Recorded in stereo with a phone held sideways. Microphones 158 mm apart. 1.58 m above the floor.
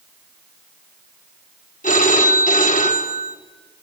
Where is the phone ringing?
55° left (ahead or behind), 3 m.